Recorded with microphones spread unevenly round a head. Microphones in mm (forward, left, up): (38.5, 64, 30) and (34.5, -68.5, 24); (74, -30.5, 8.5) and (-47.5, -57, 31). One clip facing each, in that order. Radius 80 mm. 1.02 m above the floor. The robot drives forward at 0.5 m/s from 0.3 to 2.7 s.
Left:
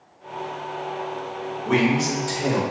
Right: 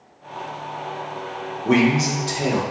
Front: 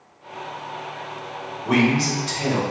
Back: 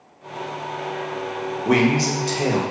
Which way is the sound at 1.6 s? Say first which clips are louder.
Right 3 dB, back 1 dB; 125° right.